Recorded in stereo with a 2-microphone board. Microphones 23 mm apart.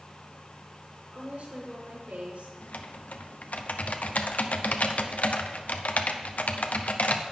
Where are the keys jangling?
I don't hear keys jangling.